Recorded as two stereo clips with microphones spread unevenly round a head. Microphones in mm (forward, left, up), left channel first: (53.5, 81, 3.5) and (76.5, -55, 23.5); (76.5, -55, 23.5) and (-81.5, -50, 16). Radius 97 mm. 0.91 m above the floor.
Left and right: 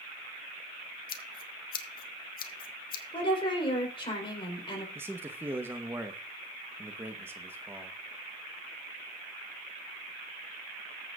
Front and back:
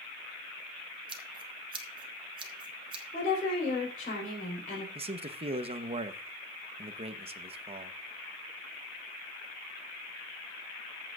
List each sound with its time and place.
1.1 s scissors: 115° left, 0.9 m
3.1 s a woman speaking: 50° left, 4 m
5.0 s a man speaking: 160° right, 0.9 m